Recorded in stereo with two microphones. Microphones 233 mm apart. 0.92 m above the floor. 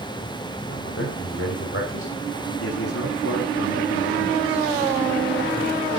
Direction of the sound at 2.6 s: 80° left.